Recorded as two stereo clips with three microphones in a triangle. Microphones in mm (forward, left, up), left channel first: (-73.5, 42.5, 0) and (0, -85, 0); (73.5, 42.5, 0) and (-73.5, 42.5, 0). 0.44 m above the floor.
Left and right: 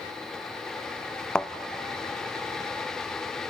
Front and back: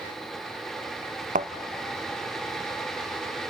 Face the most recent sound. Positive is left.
turn(degrees=-155)